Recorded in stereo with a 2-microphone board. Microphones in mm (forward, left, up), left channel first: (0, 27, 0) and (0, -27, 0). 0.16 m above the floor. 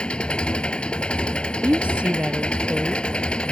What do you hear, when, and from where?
0.0 s an engine running: 20° left (ahead or behind)
1.6 s a woman speaking: 25° right (ahead or behind)